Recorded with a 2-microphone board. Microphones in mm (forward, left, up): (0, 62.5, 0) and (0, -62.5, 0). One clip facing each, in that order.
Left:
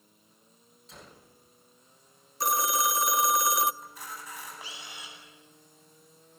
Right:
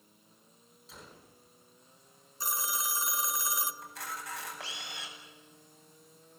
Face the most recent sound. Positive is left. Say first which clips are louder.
# right 1 dB
turn(degrees=-85)